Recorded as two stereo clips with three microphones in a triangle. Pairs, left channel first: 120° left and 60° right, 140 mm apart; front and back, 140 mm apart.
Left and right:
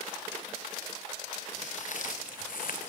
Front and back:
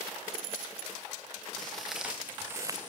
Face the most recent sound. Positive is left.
turn(degrees=125)